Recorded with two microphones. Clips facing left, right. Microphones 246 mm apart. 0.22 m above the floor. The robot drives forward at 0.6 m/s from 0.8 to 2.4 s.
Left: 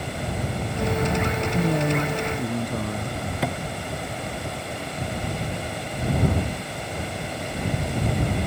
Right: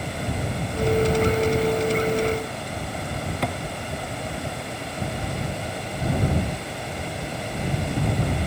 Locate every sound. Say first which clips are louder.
1.5 s a man speaking: right 2 dB; 65° left (ahead or behind); by 3.2 s 70° left (ahead or behind)
3.4 s a thud: left 1 dB; centre (ahead or behind)